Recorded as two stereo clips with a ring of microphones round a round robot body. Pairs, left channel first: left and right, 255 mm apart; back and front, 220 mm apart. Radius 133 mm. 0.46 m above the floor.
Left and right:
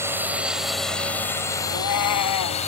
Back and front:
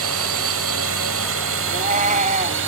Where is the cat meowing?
60° left.